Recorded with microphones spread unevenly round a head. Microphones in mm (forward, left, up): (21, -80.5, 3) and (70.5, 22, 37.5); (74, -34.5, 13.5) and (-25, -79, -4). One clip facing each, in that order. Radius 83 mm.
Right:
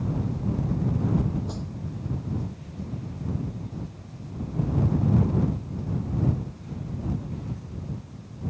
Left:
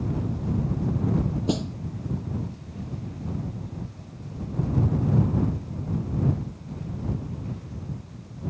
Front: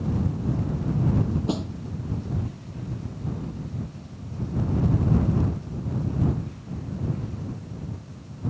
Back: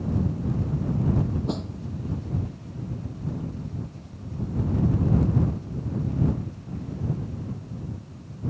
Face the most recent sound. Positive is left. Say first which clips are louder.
# left 9 dB, front 2 dB
turn(degrees=110)